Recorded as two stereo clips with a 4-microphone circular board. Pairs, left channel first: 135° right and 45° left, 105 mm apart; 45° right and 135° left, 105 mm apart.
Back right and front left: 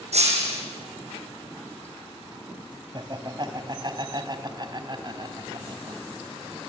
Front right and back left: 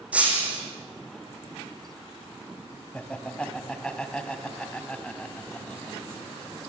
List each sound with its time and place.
0.1 s breaking glass: 55° left, 5 m
2.9 s laughter: 30° left, 2 m